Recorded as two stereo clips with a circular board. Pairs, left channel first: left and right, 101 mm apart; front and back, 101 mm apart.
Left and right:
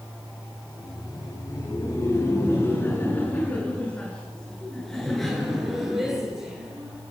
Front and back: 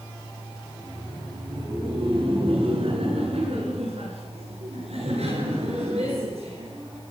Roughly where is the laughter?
Behind left.